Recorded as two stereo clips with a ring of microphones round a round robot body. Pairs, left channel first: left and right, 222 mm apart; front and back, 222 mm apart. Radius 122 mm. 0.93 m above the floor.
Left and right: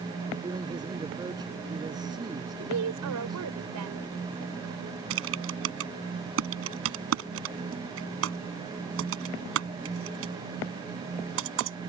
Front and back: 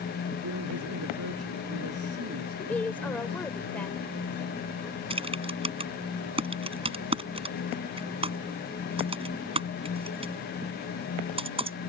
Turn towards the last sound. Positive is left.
turn(degrees=-115)